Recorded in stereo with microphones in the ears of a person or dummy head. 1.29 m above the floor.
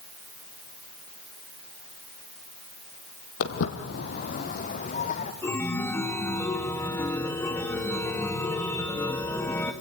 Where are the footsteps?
55° left (ahead or behind), 2 m; by 5.3 s 40° left (ahead or behind), 3.5 m.